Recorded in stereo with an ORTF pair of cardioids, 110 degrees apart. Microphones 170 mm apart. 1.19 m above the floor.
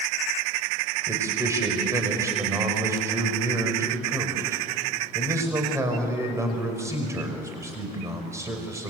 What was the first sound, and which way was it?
A man speaking, 15° right.